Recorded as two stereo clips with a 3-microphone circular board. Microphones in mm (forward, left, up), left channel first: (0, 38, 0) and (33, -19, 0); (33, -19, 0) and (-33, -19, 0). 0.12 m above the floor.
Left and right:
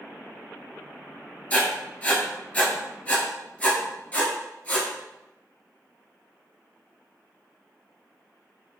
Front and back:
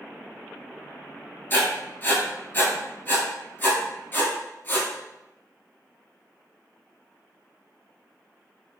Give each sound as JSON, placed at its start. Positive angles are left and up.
{"t": 1.5, "sound": "writing", "azimuth_deg": 55, "distance_m": 0.8}